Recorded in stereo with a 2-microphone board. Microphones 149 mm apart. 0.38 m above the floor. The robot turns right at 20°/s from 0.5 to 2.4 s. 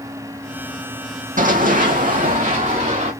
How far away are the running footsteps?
About 0.8 m.